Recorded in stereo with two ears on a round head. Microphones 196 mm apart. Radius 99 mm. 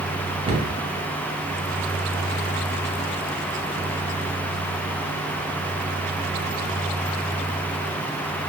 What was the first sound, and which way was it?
A cupboard door, 25° right (ahead or behind).